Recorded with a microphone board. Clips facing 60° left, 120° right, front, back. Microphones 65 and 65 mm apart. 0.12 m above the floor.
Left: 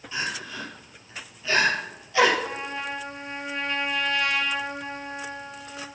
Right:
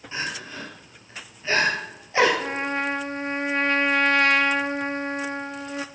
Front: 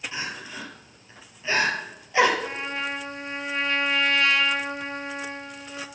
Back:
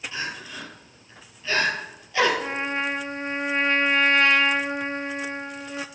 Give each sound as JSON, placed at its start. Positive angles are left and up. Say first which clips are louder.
{"t": 0.1, "sound": "crying", "louder": "even, back 1 dB", "azimuth_deg": -65, "distance_m": 2.5}
{"t": 2.4, "sound": "a trumpet", "louder": "right 5 dB, back 3 dB", "azimuth_deg": -130, "distance_m": 0.5}